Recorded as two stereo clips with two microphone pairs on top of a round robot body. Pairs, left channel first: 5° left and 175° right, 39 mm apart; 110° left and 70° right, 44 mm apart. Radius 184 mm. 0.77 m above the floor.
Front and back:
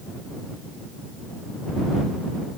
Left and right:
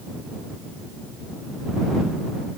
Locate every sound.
Only background noise.